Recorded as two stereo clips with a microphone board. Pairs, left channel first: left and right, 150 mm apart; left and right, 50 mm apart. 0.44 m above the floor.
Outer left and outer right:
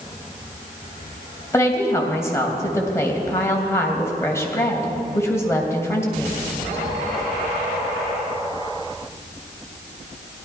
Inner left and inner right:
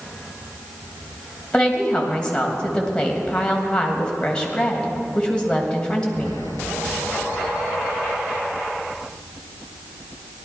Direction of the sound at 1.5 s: 15° left (ahead or behind).